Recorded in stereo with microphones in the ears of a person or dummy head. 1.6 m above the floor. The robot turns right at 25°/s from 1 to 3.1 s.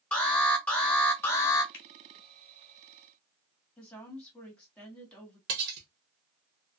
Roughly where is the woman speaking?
Centre.